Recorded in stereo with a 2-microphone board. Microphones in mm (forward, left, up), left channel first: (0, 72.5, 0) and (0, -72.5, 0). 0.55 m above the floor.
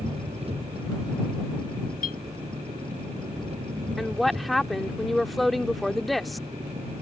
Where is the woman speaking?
Centre (ahead or behind).